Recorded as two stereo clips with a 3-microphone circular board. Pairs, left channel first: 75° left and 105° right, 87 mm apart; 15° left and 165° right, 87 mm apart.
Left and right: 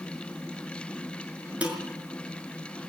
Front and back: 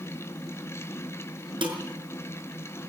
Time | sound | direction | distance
1.6 | dishes clattering | straight behind | 5.5 m